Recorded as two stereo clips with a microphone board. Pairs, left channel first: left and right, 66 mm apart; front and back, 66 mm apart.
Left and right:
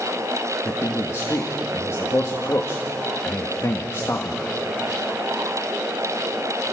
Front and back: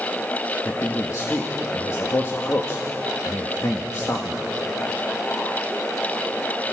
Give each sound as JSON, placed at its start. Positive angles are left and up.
{"t": 0.7, "sound": "a man speaking", "azimuth_deg": 45, "distance_m": 1.4}